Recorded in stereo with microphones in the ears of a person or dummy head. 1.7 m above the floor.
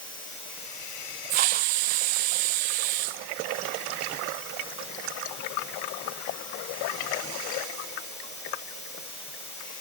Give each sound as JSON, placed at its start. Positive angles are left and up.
{"t": 1.3, "sound": "a hiss", "side_deg": -30, "distance_m": 0.6}